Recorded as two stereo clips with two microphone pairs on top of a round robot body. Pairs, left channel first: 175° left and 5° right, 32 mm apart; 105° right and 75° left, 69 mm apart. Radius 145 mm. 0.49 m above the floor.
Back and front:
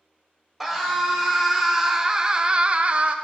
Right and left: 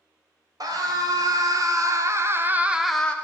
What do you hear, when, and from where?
0.6 s a scream: 80° left, 2.5 m; by 3.1 s 25° right, 0.9 m